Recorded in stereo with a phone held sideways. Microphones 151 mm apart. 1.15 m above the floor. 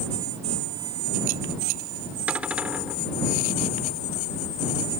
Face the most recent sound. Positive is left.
turn(degrees=-10)  # may be behind; listen again after turning